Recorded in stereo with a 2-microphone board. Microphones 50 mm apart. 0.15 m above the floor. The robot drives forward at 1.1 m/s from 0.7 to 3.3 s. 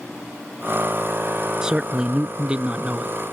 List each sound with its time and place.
1.6 s a man speaking: 15° right (ahead or behind); by 3.1 s 20° right (ahead or behind)